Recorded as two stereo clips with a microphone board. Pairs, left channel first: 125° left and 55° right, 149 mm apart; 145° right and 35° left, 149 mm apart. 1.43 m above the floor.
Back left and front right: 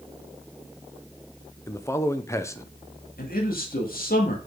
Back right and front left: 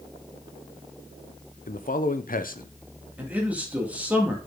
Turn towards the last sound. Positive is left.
turn(degrees=115)